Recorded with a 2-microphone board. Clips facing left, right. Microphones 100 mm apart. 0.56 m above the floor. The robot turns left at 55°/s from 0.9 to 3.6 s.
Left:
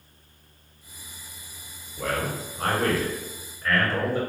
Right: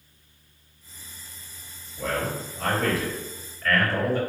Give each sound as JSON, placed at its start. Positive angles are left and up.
{"t": 2.0, "sound": "a man speaking", "azimuth_deg": 115, "distance_m": 1.9}